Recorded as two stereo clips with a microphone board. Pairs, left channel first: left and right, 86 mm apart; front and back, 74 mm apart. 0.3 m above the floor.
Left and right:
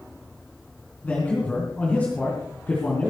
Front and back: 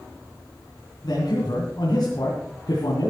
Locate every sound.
1.0 s a man speaking: 20° left, 3.5 m